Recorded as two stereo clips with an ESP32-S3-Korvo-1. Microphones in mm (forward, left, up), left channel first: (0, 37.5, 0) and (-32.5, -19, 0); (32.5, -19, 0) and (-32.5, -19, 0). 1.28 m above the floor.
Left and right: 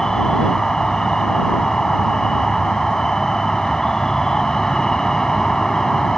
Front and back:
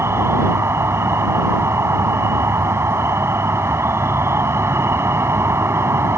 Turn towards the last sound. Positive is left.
turn(degrees=140)